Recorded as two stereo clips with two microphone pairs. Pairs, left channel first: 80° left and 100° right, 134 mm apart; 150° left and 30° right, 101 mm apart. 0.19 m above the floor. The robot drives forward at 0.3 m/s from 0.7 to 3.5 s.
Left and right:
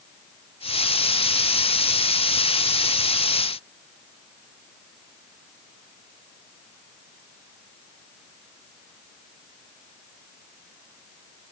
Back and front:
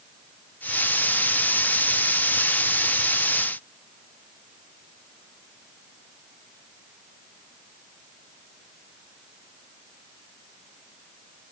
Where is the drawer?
I don't hear a drawer.